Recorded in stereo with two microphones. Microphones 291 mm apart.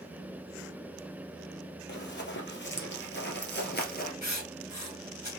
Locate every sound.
1.9 s running footsteps: 35° left (ahead or behind), 1.6 m; by 4.1 s 30° left (ahead or behind), 1.3 m
4.2 s writing: 65° left (ahead or behind), 1.5 m